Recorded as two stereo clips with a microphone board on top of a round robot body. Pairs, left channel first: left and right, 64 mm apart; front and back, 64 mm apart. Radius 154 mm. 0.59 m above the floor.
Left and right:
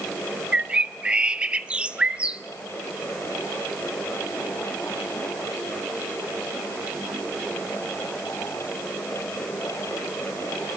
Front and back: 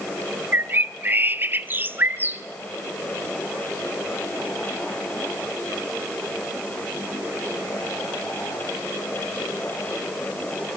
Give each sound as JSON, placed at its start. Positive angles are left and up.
{"t": 0.5, "sound": "a bird", "azimuth_deg": -150, "distance_m": 1.0}